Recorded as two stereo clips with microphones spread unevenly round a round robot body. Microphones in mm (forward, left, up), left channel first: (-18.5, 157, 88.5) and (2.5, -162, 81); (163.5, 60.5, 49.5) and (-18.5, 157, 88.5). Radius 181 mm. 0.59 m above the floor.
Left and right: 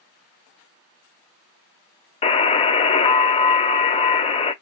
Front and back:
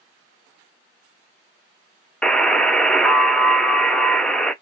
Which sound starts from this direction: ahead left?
A buzzer, at 2.2 s.